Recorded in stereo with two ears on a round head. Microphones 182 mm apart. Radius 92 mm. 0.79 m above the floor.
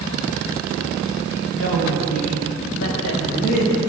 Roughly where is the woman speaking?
Left.